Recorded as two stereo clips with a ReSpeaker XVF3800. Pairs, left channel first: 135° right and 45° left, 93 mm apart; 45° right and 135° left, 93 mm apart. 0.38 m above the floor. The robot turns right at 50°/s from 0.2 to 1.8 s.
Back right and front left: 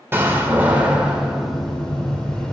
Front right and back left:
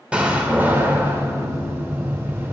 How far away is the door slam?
About 0.8 m.